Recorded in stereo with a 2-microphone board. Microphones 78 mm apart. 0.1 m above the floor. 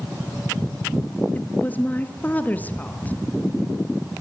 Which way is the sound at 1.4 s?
20° left (ahead or behind).